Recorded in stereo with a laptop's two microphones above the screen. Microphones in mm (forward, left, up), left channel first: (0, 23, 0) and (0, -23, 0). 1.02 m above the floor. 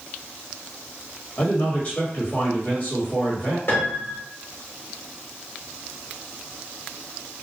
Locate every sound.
1.4 s a man speaking: 30° left (ahead or behind), 1.2 m
3.7 s a piano: 55° left (ahead or behind), 0.9 m